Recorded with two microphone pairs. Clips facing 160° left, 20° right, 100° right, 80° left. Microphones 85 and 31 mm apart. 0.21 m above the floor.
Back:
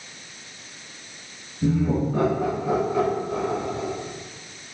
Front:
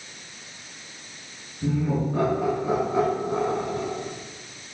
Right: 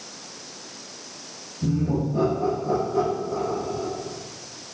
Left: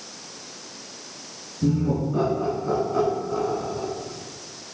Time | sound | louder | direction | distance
1.6 | laughter | back 3 dB, left 1 dB | 95° left | 2.5 m